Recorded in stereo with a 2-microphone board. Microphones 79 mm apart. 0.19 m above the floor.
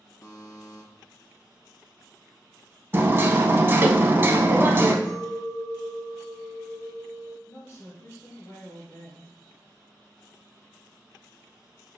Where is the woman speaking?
35° left (ahead or behind), 1.9 m.